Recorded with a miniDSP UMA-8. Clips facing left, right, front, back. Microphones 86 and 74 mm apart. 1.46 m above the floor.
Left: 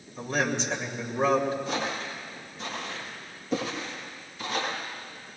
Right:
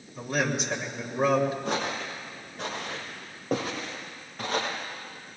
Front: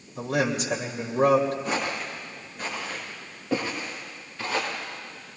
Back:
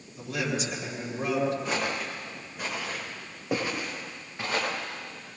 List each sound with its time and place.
0.1 s a man speaking: 5° right, 2.5 m
1.6 s footsteps: 90° right, 5 m; by 4.7 s 115° right, 6.5 m